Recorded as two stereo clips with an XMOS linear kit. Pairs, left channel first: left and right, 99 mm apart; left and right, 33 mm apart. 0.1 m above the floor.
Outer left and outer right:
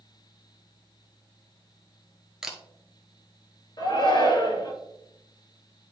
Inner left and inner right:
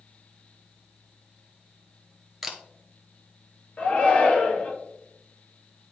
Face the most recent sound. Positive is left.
turn(degrees=50)  # may be behind; listen again after turning